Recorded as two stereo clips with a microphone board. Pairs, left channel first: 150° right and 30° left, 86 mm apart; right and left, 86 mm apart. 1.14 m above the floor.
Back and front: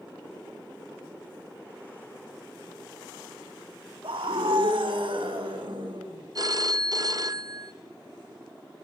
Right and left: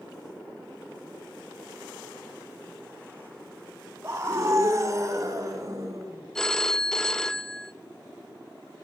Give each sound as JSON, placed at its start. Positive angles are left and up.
{"t": 4.0, "sound": "a scream", "azimuth_deg": 35, "distance_m": 2.0}
{"t": 6.3, "sound": "a phone ringing", "azimuth_deg": -5, "distance_m": 0.5}